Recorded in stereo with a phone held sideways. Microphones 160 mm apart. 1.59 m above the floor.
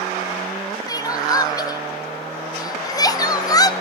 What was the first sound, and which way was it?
Crying, 25° left (ahead or behind).